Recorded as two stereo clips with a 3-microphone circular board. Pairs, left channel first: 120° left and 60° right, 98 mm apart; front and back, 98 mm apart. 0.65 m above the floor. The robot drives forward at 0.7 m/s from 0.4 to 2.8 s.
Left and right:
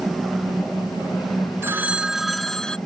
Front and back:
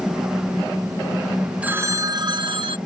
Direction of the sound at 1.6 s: 110° right.